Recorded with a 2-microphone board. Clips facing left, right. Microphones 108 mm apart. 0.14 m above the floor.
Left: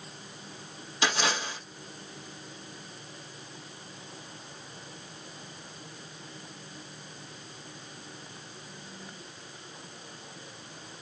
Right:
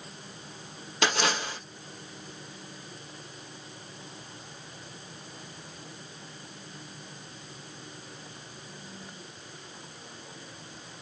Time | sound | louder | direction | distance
1.0 | a splash | right 2 dB | 65° right (ahead or behind) | 1.8 m